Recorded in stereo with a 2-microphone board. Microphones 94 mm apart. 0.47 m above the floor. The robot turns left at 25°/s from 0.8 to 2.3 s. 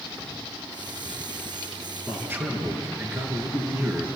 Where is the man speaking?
20° right (ahead or behind), 6 m; by 4.1 s 25° right (ahead or behind), 6 m.